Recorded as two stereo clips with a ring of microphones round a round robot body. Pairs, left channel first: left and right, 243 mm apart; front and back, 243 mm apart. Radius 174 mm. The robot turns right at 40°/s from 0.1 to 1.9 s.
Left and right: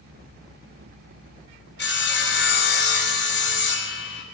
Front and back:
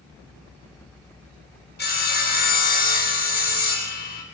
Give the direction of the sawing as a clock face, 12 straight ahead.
10 o'clock.